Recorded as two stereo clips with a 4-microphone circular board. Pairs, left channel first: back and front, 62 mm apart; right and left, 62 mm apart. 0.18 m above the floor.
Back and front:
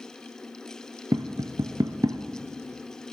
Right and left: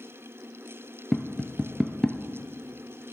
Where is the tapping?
Straight ahead, 0.6 m.